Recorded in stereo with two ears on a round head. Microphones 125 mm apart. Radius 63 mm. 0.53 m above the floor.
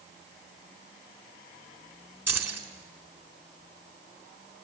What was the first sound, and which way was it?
Keys jangling, 15° right (ahead or behind).